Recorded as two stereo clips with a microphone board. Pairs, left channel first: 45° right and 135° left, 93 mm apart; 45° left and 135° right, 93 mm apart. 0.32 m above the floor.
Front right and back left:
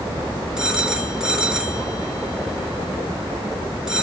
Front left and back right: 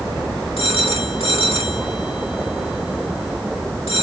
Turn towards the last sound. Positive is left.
turn(degrees=55)